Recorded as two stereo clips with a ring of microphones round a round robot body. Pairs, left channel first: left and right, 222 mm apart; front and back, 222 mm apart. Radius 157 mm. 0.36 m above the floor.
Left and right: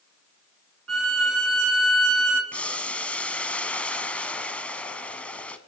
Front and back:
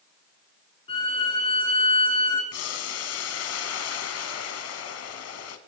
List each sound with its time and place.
0.9 s a violin: 75° right, 1.4 m
2.5 s boiling: 5° left, 1.0 m